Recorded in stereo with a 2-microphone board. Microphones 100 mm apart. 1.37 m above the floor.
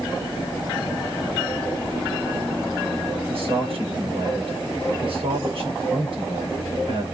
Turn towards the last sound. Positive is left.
turn(degrees=-65)  # may be behind; listen again after turning